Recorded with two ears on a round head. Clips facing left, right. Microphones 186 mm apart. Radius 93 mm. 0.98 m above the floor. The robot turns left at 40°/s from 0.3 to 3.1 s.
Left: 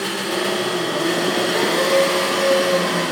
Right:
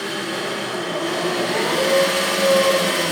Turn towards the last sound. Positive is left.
turn(degrees=-50)